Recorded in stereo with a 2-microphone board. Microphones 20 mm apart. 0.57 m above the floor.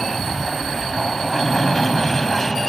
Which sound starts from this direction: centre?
An aircraft, at 0.0 s.